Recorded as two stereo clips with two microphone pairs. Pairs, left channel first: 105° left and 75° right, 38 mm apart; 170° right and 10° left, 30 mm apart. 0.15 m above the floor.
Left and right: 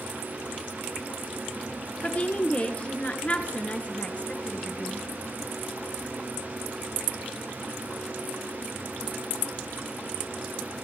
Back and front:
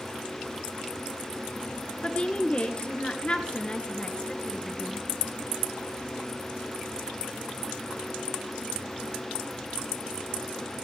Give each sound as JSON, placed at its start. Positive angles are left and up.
{"t": 2.0, "sound": "a woman speaking", "azimuth_deg": 145, "distance_m": 2.0}